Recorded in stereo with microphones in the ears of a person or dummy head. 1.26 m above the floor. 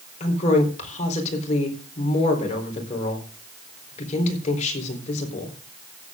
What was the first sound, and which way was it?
A woman speaking, 40° left (ahead or behind).